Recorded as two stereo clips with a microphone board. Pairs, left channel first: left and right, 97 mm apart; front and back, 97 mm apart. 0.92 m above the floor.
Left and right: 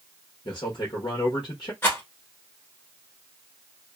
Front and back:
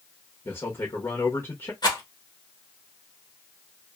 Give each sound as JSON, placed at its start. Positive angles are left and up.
{"t": 0.5, "sound": "a man speaking", "azimuth_deg": 60, "distance_m": 1.0}
{"t": 1.8, "sound": "a rattle", "azimuth_deg": 30, "distance_m": 1.3}